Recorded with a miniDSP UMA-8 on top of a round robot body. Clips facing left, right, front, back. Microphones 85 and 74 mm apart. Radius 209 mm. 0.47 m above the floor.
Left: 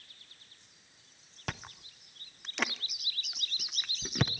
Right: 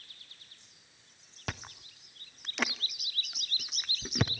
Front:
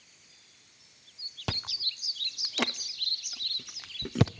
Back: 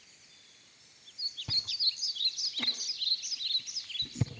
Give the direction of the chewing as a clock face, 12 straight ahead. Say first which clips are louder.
Even, front 7 dB; 12 o'clock.